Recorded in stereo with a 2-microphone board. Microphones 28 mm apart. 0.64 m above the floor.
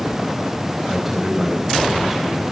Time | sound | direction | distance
0.9 | a man speaking | 15° right (ahead or behind) | 4 m